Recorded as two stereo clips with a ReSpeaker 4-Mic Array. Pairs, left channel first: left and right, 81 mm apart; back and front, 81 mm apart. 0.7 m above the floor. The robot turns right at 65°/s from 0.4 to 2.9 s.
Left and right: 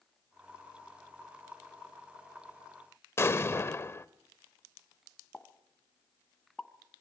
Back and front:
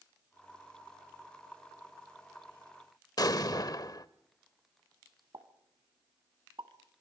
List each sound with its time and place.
3.2 s an explosion: 145° left, 0.8 m
5.3 s a pop: 10° left, 1.8 m